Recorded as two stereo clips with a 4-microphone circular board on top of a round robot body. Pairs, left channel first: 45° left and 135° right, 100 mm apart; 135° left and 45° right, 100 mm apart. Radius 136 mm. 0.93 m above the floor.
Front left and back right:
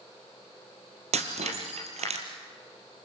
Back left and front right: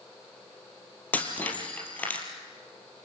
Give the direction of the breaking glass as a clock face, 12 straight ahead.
5 o'clock.